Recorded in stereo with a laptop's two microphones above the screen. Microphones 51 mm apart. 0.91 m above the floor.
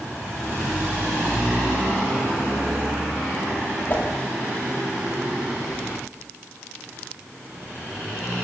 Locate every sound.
3.9 s a whoosh: 40° left (ahead or behind), 3.5 m